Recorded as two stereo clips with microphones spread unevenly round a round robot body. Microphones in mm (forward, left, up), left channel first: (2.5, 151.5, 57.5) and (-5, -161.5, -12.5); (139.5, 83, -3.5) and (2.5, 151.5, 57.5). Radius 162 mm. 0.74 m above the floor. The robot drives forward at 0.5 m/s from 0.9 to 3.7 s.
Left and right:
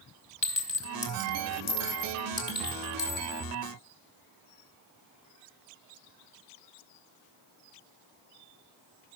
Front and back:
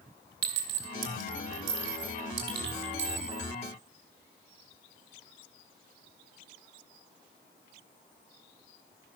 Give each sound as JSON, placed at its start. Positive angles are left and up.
{"t": 0.4, "sound": "a clink", "azimuth_deg": 160, "distance_m": 1.5}